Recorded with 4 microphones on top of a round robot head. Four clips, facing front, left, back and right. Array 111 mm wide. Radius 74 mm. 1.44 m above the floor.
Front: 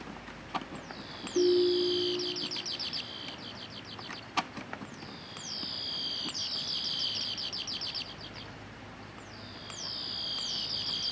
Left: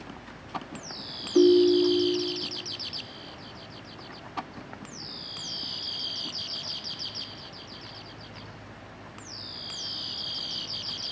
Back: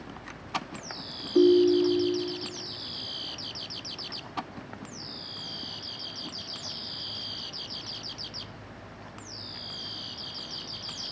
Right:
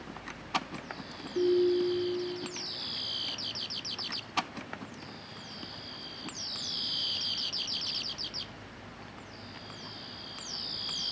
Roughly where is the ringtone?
Behind left.